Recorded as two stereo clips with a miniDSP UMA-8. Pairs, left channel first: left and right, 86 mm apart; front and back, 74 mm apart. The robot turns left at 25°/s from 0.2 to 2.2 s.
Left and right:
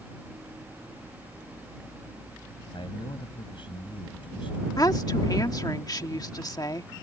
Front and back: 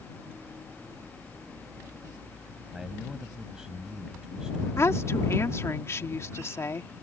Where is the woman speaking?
50° left.